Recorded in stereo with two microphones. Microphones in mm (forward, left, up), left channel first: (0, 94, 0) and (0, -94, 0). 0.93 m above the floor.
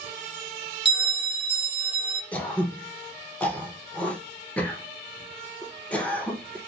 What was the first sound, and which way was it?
A bell, 65° left (ahead or behind).